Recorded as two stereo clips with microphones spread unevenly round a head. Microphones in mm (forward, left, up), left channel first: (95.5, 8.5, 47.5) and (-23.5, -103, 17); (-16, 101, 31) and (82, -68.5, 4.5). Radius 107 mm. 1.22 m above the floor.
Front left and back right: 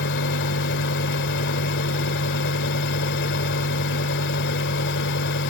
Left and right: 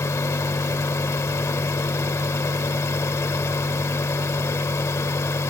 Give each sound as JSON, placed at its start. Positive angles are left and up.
{"t": 0.0, "sound": "a fan", "azimuth_deg": 45}